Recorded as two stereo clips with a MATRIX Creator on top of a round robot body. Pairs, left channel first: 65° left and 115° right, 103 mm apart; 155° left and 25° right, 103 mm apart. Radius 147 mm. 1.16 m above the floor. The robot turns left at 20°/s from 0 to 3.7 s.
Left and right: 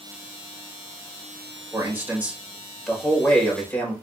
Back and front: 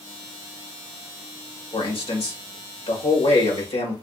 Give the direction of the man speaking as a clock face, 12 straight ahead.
6 o'clock.